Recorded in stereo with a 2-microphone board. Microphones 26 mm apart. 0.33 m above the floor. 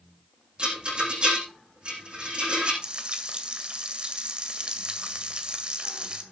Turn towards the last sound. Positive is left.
turn(degrees=-40)  # may be behind; listen again after turning